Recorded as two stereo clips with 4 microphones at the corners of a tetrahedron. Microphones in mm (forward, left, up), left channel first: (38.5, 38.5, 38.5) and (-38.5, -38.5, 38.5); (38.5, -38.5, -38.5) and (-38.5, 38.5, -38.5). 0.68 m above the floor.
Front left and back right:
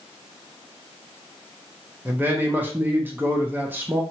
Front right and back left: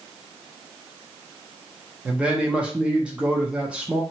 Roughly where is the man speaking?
Behind.